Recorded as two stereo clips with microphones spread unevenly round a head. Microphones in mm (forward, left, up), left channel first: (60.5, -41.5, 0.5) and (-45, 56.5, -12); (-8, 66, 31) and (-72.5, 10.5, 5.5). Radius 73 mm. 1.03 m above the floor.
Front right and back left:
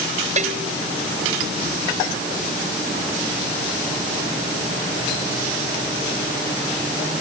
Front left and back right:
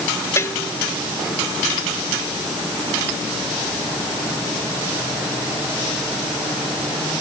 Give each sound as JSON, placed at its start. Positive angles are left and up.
{"t": 0.4, "sound": "a bell", "azimuth_deg": 95}